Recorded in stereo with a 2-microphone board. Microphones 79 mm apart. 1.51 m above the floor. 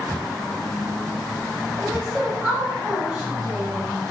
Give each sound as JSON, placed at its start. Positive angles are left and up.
{"t": 1.8, "sound": "a woman speaking", "side_deg": -15, "distance_m": 1.2}